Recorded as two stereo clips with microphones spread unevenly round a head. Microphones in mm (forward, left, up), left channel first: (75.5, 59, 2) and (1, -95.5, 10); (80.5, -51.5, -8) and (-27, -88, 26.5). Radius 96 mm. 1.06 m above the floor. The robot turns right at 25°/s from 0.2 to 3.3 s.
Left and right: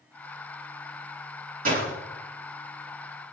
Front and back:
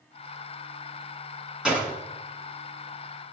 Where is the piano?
No piano in this recording.